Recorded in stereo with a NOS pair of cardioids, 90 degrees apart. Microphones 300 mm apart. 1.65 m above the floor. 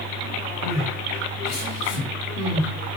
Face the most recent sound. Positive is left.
turn(degrees=55)